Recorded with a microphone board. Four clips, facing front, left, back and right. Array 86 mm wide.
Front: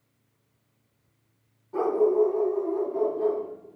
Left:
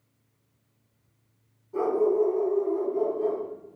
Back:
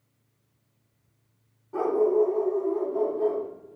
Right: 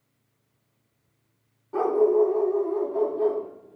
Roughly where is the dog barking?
Right.